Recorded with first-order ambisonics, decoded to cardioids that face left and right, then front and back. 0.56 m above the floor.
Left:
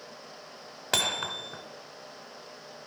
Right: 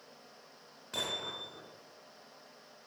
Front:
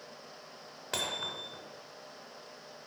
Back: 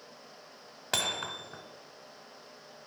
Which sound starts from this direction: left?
Hammering, at 0.9 s.